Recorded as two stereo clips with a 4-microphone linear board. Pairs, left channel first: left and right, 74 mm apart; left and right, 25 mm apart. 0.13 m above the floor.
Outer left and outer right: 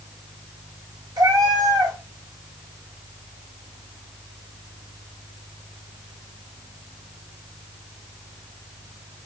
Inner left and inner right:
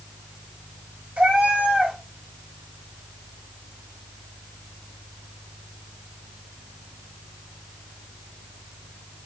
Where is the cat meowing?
70° right (ahead or behind), 1.6 m.